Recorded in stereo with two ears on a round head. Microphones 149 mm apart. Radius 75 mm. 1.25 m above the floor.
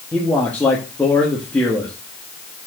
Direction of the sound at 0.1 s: 10° left (ahead or behind).